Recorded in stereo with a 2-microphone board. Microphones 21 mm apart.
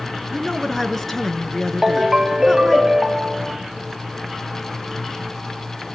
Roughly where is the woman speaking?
Centre.